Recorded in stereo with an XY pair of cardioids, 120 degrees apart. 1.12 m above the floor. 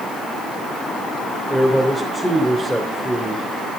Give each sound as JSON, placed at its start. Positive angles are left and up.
{"t": 1.5, "sound": "a man speaking", "azimuth_deg": 5, "distance_m": 3.5}